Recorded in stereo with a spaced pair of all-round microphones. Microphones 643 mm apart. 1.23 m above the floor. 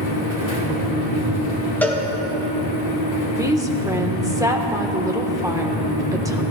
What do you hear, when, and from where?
0.0 s a fan: 65° left (ahead or behind), 2 m
1.8 s a cowbell: 5° left (ahead or behind), 1.3 m
3.3 s a woman speaking: 5° right (ahead or behind), 1.2 m